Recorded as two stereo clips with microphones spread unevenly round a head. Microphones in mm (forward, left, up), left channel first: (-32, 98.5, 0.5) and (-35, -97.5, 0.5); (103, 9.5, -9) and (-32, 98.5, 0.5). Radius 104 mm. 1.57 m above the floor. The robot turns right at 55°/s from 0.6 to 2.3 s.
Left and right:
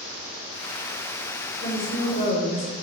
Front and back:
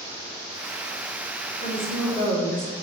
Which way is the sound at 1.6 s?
15° left.